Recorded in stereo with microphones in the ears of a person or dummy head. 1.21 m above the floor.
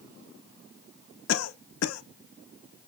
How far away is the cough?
About 0.5 m.